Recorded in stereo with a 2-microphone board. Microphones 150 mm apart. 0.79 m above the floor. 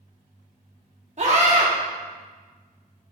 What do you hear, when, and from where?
1.2 s a scream: 45° right (ahead or behind), 2 m